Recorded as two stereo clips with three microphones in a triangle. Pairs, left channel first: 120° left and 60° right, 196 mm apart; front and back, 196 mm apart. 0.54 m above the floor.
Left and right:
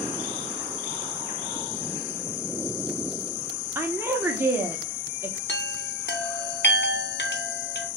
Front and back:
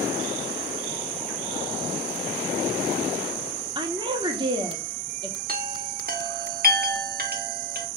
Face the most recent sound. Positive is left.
turn(degrees=145)